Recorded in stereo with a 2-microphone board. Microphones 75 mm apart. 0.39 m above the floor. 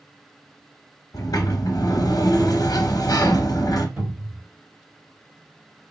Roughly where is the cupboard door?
Centre.